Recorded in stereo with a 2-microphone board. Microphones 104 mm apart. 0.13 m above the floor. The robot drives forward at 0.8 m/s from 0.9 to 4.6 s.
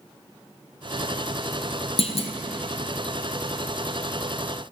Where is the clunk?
75° left (ahead or behind), 0.9 m; by 2.3 s 65° left (ahead or behind), 0.9 m.